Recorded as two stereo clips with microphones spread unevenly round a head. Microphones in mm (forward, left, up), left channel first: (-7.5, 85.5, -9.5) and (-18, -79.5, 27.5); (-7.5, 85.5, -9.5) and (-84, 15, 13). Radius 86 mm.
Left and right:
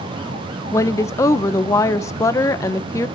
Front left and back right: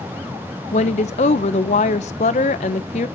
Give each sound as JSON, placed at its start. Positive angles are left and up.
{"t": 0.7, "sound": "a woman speaking", "azimuth_deg": 10, "distance_m": 0.9}